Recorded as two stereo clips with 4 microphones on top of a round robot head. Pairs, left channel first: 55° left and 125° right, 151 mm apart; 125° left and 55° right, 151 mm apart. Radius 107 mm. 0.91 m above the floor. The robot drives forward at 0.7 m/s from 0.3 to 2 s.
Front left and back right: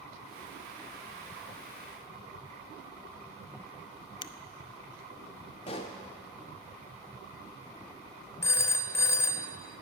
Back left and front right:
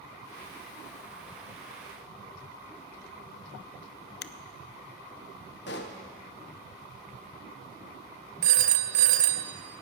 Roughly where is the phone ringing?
Ahead.